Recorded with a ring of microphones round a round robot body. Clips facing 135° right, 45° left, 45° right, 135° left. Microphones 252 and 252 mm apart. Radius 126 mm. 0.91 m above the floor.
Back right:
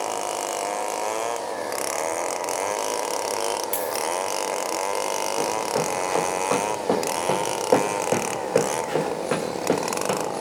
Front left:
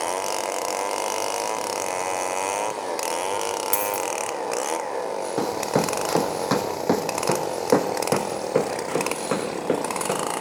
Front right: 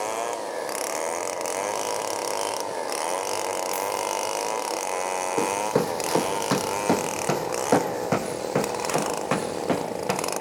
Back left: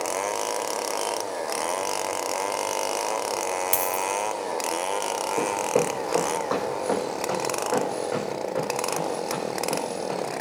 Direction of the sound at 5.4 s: 25° left.